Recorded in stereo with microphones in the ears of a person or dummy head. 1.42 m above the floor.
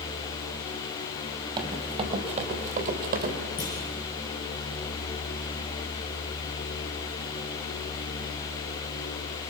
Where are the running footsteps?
25° right (ahead or behind), 2.5 m; by 3.3 s 55° right (ahead or behind), 3 m.